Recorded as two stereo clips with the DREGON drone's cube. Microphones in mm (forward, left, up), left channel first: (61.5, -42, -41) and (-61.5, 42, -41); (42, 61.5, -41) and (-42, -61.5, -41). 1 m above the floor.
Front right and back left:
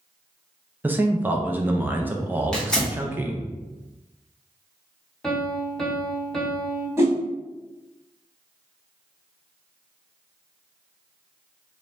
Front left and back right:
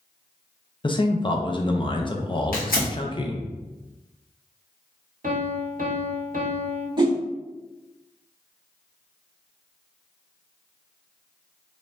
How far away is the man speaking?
About 0.5 m.